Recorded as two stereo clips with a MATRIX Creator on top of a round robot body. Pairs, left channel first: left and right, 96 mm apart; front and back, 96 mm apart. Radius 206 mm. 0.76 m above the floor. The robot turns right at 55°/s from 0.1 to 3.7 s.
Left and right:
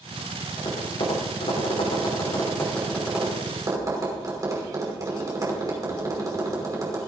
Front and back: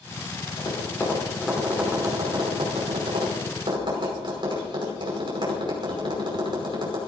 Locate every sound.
0.6 s tapping: 45° left, 5 m; by 7.0 s 145° right, 5 m